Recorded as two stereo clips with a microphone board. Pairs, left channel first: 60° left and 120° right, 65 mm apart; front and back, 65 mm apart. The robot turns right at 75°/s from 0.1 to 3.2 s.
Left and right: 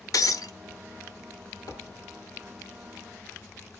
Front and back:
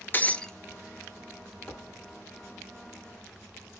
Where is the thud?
65° left, 3 m; by 2.1 s 95° left, 3 m.